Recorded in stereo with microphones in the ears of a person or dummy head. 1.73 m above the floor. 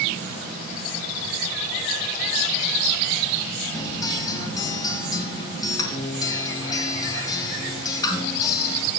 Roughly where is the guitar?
Left.